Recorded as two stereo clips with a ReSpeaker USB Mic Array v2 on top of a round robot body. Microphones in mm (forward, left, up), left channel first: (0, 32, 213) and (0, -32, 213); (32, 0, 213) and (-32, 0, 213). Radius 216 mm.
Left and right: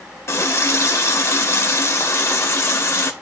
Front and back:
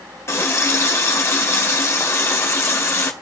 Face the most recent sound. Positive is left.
turn(degrees=45)